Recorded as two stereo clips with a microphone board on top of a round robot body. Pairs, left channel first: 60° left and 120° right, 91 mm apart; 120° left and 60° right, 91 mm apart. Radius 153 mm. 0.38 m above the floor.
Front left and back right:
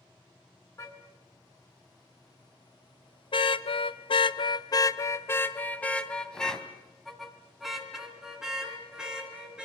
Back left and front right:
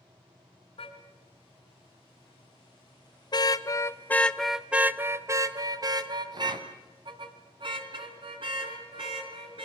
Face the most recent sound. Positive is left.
turn(degrees=-40)